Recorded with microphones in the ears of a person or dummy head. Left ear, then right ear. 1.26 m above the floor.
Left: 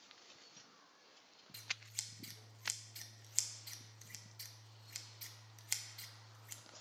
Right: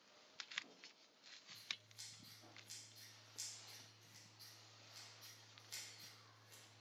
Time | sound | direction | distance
1.5 | scissors | 55° left (ahead or behind) | 0.5 m